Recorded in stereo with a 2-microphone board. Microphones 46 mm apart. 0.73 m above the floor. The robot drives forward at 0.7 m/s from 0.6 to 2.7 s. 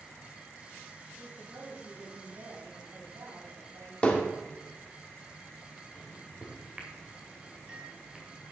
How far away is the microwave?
About 2 m.